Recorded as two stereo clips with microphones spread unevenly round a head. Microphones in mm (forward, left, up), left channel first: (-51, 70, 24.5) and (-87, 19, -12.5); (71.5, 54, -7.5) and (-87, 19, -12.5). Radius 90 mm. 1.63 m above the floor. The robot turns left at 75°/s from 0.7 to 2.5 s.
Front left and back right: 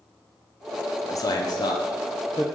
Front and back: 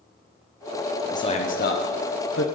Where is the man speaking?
85° left, 1.0 m; by 2.5 s 20° right, 1.0 m.